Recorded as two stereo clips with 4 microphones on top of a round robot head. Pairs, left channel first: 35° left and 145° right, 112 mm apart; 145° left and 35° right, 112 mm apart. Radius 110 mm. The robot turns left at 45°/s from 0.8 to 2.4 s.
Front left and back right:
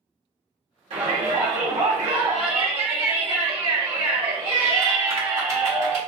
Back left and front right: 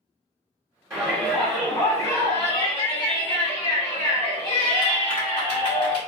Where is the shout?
105° right, 1.1 m; by 6.0 s 175° right, 1.1 m.